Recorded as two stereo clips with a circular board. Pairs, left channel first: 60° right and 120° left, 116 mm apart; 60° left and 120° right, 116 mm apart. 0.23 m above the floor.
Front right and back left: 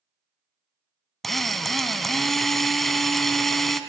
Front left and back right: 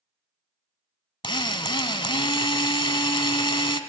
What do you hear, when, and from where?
1.2 s a drill: 25° left, 0.7 m